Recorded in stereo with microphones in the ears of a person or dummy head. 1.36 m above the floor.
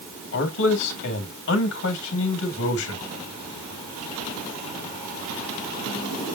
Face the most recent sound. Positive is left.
turn(degrees=70)  # may be behind; listen again after turning